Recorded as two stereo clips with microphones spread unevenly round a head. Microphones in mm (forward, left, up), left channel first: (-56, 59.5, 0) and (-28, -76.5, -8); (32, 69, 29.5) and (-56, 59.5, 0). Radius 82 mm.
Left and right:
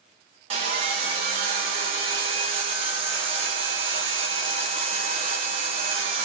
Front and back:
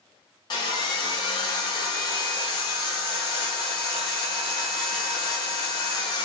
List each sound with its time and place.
0.5 s sawing: 25° right, 0.5 m